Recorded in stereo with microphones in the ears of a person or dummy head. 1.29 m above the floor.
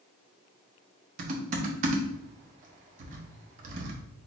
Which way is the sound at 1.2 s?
45° right (ahead or behind).